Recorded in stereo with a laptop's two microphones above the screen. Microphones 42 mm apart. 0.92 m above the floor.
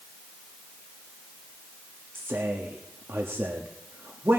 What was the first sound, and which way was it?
A man speaking, 70° right (ahead or behind).